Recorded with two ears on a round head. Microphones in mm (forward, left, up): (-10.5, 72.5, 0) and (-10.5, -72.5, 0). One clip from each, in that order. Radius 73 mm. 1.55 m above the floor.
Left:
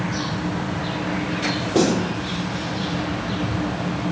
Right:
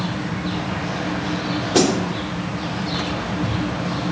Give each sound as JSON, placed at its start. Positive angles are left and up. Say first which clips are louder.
{"t": 1.7, "sound": "a snare drum", "louder": "right 2 dB", "side_deg": -55, "distance_m": 4.0}